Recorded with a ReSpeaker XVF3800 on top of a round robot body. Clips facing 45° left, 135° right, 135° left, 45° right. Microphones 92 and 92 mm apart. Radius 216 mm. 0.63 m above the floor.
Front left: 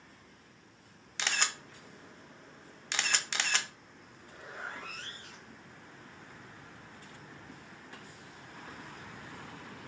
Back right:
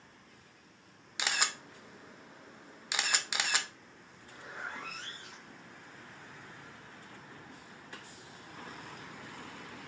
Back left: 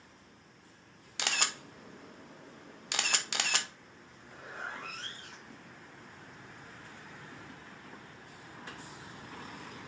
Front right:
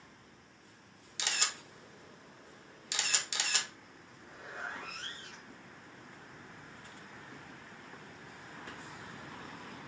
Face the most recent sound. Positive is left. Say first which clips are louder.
# front left 1 dB, back left 1 dB
turn(degrees=160)